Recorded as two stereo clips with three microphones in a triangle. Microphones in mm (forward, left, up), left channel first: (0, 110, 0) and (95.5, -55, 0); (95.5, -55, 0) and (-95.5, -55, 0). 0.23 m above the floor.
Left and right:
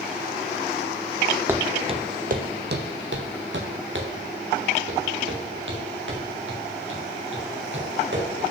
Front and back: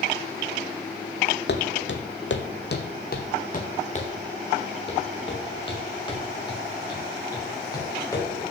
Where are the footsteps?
20° left, 0.9 m; by 8.5 s 75° right, 4.5 m.